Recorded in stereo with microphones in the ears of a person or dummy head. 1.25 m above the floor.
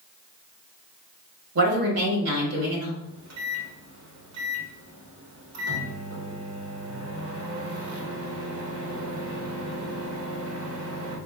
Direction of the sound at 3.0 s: 70° right (ahead or behind).